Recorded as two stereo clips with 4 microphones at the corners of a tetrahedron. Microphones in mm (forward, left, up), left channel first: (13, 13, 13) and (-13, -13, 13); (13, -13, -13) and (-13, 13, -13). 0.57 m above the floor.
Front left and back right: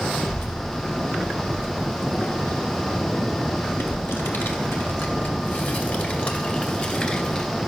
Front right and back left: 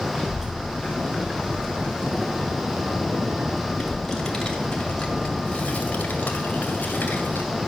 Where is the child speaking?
60° left, 3.5 m; by 7.5 s 20° right, 2 m.